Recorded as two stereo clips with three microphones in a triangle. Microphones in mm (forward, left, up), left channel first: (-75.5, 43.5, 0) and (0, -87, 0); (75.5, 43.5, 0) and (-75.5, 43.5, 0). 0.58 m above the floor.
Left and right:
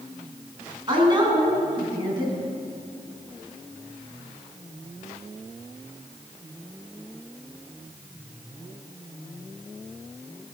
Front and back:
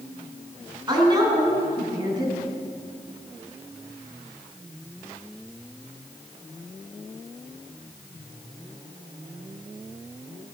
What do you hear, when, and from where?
0.9 s a woman speaking: 120° right, 4.5 m